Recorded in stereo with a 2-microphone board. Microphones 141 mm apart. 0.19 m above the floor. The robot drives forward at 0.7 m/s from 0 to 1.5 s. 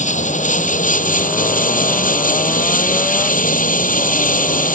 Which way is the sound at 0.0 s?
60° left (ahead or behind).